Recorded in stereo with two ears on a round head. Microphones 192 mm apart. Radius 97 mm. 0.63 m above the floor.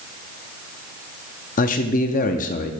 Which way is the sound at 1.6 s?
40° left (ahead or behind).